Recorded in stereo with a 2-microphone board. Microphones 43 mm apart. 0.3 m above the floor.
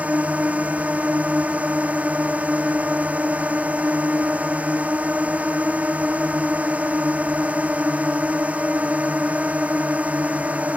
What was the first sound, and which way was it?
A drone, 30° right (ahead or behind).